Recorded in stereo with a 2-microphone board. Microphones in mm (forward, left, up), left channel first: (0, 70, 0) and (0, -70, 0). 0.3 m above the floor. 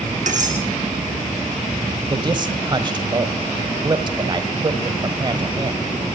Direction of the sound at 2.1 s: 30° right (ahead or behind).